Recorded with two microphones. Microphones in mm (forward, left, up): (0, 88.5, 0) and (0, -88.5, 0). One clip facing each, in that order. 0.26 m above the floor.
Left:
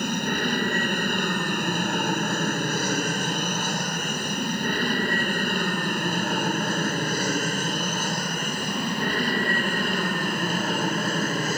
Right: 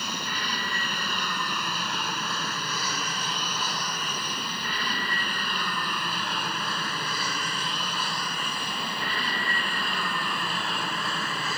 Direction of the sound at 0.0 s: 50° left (ahead or behind).